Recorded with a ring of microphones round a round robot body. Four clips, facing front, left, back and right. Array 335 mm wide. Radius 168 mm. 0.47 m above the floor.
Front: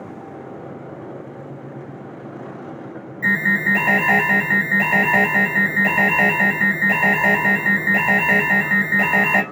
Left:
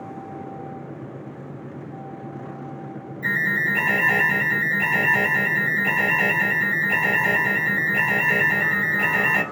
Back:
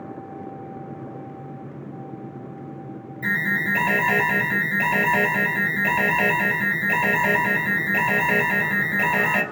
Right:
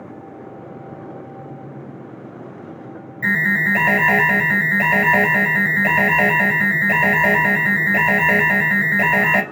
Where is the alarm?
75° right, 4 m.